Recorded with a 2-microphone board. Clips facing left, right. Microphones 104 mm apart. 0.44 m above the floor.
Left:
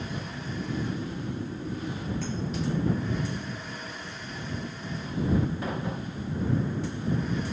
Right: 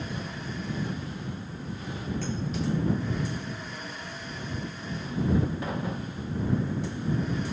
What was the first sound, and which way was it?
Snoring, 40° left (ahead or behind).